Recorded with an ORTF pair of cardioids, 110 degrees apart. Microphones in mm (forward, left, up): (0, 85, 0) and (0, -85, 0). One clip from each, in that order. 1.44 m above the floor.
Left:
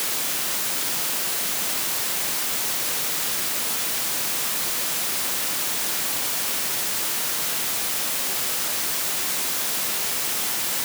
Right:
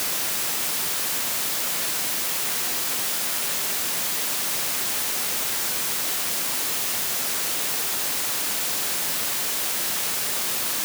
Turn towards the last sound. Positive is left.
No sound to turn to.